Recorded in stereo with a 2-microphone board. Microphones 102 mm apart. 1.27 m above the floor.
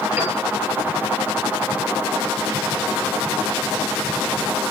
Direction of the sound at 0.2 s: 20° right (ahead or behind).